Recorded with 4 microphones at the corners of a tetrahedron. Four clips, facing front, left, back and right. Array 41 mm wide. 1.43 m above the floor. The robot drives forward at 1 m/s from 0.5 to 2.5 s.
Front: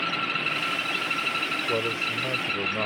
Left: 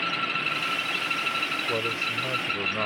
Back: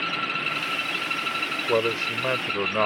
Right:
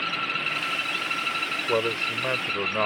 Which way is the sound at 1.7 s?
145° right.